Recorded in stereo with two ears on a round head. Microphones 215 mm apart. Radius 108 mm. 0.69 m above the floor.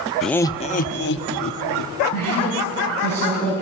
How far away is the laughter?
About 0.6 m.